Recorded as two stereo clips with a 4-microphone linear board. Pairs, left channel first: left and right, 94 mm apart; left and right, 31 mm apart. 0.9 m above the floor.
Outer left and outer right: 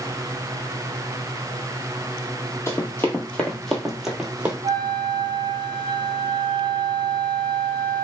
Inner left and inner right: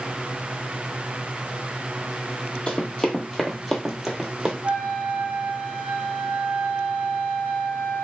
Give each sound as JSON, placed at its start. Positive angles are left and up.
{"t": 2.7, "sound": "running footsteps", "side_deg": 30, "distance_m": 1.0}
{"t": 4.6, "sound": "a flute", "side_deg": -50, "distance_m": 0.8}